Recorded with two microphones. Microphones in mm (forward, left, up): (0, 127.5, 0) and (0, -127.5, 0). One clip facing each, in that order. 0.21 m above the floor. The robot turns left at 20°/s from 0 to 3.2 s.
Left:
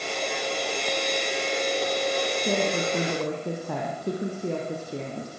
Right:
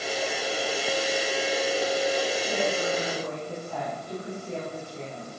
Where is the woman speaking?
60° left (ahead or behind), 8.5 m; by 5.3 s 75° left (ahead or behind), 8.5 m.